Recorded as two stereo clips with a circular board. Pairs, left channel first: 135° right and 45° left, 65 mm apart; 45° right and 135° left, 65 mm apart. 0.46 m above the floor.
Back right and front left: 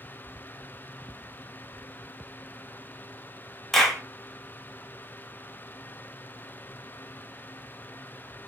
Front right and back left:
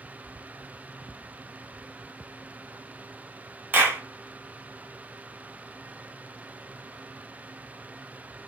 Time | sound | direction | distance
3.7 | a clap | 150° left | 0.5 m